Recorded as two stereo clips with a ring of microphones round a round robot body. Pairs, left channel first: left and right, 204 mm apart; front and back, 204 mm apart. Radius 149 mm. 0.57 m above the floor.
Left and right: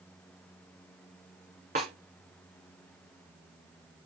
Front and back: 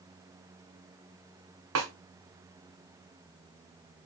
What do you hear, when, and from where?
1.8 s a snare drum: 155° right, 1.6 m